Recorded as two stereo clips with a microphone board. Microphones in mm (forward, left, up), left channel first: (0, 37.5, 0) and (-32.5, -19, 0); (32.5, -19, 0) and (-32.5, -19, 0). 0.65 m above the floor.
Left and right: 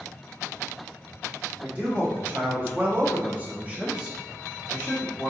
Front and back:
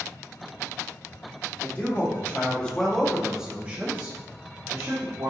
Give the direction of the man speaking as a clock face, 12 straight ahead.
2 o'clock.